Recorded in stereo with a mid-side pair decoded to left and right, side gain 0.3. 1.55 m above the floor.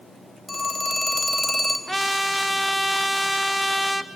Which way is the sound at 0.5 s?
5° right.